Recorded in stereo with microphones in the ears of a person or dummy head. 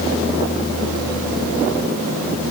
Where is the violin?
I don't hear a violin.